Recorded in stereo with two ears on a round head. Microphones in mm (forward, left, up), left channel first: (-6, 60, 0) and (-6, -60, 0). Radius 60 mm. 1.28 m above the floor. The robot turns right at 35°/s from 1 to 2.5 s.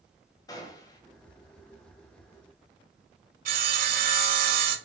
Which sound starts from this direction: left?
A gunshot, at 0.5 s.